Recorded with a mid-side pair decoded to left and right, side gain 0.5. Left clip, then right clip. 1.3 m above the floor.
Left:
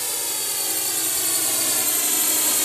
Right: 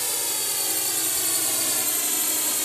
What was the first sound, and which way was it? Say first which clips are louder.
A drone: even; straight ahead.